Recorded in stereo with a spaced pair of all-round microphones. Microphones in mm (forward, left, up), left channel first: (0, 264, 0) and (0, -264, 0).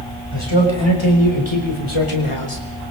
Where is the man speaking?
55° left (ahead or behind), 6 m; by 2.6 s 75° left (ahead or behind), 4 m.